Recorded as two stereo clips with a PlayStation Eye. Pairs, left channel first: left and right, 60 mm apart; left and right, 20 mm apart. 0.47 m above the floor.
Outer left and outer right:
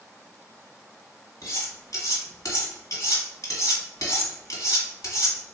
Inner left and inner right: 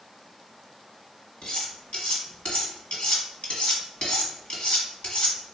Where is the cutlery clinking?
75° left (ahead or behind), 1.4 m.